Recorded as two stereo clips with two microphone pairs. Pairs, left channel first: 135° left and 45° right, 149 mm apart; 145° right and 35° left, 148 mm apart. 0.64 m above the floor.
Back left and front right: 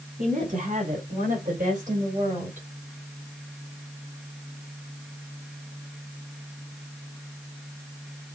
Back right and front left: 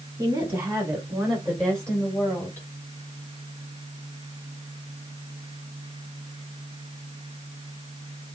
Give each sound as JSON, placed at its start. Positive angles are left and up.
{"t": 0.2, "sound": "a woman speaking", "azimuth_deg": -35, "distance_m": 2.5}